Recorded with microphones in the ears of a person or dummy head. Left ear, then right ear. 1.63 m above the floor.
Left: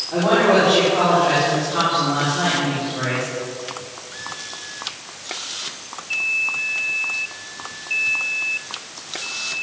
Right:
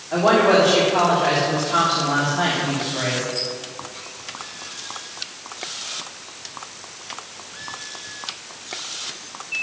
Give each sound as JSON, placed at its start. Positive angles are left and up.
{"t": 0.1, "sound": "a woman speaking", "side_deg": -85, "distance_m": 3.5}